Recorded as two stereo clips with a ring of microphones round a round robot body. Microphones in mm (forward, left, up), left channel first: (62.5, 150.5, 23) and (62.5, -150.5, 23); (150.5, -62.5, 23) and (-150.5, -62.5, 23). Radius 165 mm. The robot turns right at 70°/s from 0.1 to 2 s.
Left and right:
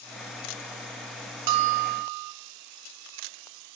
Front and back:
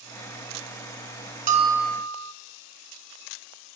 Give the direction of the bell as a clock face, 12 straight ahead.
4 o'clock.